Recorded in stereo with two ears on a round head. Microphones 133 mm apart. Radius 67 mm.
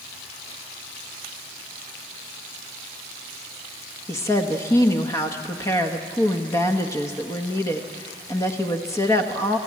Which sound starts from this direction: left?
A woman speaking, at 4.1 s.